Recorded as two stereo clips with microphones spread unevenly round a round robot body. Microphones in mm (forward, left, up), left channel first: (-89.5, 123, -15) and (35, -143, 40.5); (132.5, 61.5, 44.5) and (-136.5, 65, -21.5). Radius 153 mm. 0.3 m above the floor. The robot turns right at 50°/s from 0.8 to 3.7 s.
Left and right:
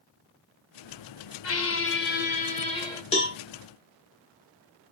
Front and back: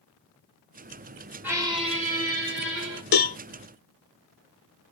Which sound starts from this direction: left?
A squeak, at 1.4 s.